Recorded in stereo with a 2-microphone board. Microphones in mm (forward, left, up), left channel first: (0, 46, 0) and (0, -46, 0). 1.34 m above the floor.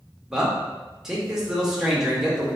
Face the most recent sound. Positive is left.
turn(degrees=-5)  # may be behind; listen again after turning